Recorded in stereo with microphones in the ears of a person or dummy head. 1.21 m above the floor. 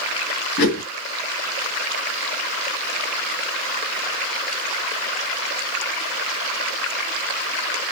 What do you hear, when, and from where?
0.6 s a whoosh: 60° left (ahead or behind), 2.5 m